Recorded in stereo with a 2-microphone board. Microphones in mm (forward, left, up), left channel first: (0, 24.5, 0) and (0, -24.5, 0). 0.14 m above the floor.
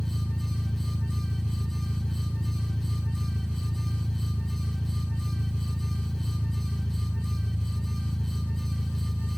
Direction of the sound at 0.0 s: 20° right (ahead or behind).